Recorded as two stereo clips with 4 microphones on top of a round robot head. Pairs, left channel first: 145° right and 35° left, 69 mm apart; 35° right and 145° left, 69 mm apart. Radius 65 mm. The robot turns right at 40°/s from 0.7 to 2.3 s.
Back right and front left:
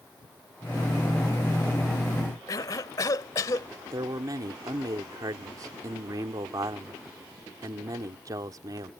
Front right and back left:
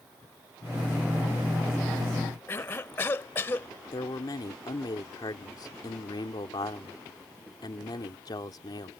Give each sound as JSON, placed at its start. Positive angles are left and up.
{"t": 2.5, "sound": "a cough", "azimuth_deg": -95}
{"t": 3.9, "sound": "a man speaking", "azimuth_deg": 0}